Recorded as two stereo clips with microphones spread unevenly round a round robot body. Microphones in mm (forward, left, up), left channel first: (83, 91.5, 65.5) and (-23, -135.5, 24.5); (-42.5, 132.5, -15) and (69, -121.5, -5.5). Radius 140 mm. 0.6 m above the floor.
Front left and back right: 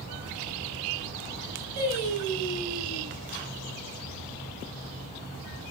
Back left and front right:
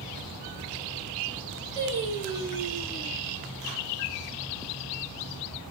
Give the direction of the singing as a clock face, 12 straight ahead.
5 o'clock.